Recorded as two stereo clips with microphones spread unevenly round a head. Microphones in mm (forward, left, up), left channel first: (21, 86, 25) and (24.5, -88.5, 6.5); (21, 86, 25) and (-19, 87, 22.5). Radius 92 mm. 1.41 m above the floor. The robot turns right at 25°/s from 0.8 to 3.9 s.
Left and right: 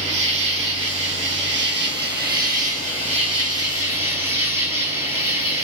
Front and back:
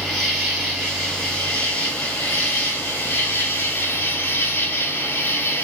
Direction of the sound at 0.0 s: 90° right.